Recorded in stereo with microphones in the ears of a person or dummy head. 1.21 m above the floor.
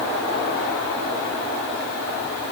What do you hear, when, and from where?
Only background noise.